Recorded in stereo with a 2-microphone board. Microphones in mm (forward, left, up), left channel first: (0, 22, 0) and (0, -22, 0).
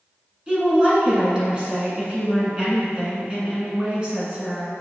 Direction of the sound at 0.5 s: 20° right (ahead or behind).